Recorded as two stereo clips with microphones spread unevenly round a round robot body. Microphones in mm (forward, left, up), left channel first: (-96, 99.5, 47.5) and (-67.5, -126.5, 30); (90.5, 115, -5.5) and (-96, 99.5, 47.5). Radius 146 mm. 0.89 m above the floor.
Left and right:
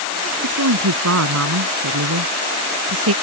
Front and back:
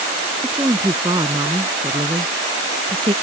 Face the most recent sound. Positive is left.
turn(degrees=-105)